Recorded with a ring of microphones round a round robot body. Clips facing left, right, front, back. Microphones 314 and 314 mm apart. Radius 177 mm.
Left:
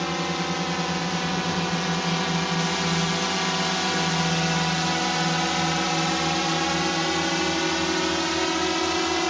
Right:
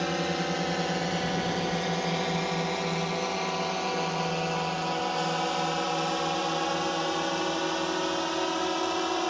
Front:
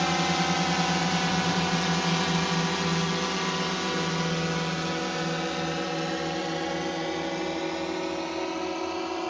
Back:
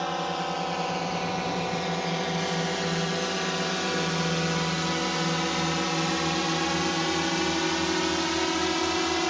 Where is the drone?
15° left; by 9.3 s 130° left.